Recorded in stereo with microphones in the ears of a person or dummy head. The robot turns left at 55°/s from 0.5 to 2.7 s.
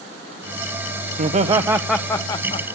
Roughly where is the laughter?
Behind right.